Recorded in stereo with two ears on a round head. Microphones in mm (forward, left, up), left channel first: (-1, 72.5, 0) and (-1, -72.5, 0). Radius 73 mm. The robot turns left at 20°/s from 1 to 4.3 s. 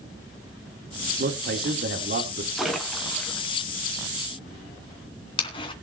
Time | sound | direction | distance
1.2 | a man speaking | 65° right (ahead or behind) | 2 m
2.6 | a splash | centre (ahead or behind) | 2.5 m